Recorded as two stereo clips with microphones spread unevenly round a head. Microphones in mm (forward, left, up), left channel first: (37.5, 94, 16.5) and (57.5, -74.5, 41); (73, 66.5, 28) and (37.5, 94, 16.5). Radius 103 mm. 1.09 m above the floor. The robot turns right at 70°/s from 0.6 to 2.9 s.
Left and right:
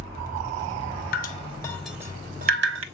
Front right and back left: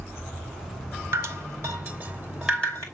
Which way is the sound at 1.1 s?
135° left.